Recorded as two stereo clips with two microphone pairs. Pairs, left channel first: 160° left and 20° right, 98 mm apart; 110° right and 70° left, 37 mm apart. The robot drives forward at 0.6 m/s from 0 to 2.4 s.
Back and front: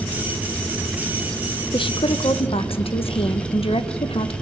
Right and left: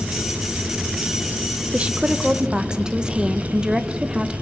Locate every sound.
1.7 s a woman speaking: 130° left, 1.0 m; by 4.3 s 140° left, 1.3 m